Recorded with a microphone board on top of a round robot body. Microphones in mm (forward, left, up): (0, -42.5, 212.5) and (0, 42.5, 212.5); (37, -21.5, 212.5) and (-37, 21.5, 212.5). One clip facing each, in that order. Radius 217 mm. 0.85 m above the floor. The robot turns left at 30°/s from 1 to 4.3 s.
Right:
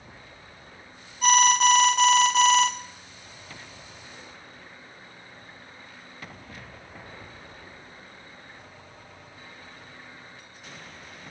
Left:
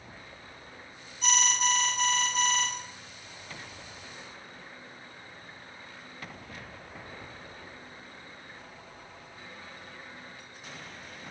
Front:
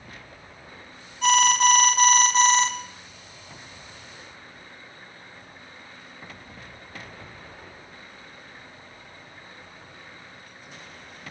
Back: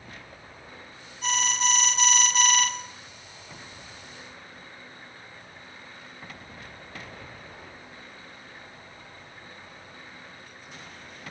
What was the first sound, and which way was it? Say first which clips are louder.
An alarm: right 10 dB, front 9 dB; 50° right.